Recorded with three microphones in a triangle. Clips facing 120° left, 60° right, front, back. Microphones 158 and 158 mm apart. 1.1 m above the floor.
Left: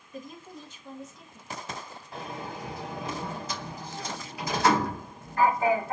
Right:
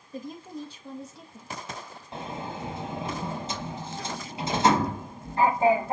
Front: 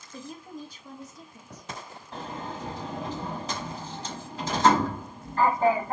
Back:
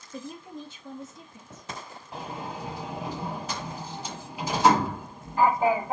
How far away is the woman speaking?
About 1.9 m.